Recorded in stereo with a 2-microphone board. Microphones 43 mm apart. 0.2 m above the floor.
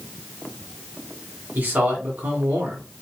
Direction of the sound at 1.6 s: 45° right (ahead or behind).